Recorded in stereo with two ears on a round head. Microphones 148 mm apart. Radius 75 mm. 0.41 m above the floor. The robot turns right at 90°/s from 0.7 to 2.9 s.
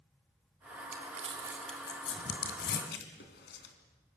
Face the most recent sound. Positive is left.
turn(degrees=65)  # may be behind; listen again after turning